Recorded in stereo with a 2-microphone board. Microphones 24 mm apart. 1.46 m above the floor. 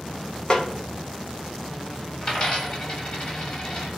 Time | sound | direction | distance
0.5 | a snare drum | 35° left (ahead or behind) | 0.5 m
2.2 | a dropped coin | 40° left (ahead or behind) | 1.6 m